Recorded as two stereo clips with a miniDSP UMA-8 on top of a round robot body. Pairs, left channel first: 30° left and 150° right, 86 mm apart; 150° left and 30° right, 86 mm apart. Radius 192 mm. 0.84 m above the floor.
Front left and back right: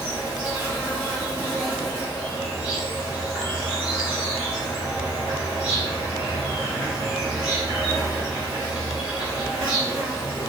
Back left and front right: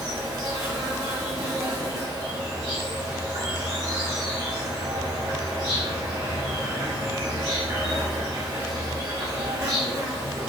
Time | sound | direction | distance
0.0 | an insect | 75° right | 1.0 m